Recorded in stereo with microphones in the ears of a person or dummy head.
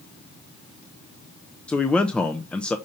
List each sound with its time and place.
1.7 s a man speaking: 5° left (ahead or behind), 0.5 m